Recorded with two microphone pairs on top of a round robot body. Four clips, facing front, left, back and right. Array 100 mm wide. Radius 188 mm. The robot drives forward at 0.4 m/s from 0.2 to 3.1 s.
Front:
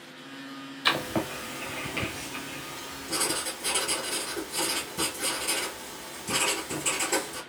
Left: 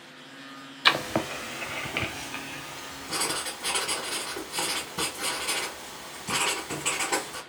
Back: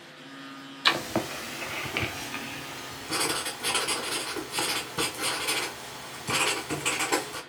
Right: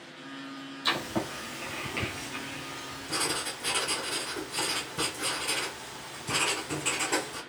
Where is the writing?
100° left, 0.6 m; by 7.4 s 155° left, 1.1 m.